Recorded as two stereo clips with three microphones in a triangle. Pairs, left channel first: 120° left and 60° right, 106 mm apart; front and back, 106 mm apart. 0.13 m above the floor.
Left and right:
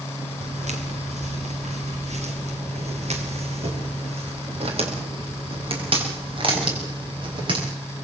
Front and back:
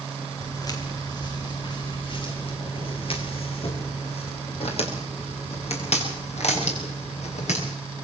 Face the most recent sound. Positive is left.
turn(degrees=-15)